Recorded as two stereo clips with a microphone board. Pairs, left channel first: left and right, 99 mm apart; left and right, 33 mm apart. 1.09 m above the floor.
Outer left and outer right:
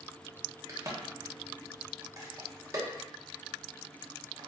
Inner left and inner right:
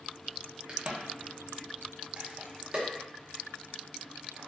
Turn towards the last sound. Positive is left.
turn(degrees=-35)  # may be behind; listen again after turning